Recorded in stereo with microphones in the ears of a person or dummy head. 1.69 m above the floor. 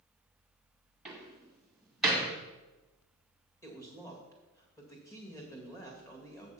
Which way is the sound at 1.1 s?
Centre (ahead or behind).